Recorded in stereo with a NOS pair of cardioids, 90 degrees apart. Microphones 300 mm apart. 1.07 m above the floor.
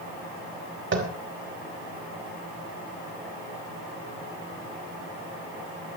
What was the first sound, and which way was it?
Tapping, 40° right.